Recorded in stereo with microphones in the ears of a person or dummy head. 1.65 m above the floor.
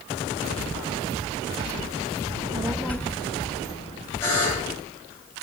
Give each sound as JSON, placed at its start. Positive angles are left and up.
{"t": 2.3, "sound": "a child speaking", "side_deg": -25, "distance_m": 0.8}
{"t": 4.2, "sound": "a buzzer", "side_deg": 15, "distance_m": 8.5}